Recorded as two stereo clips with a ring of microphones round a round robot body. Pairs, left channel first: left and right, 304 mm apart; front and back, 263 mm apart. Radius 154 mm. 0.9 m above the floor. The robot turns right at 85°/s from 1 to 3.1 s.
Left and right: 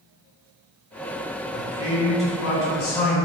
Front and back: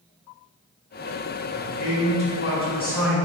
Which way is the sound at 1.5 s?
40° right.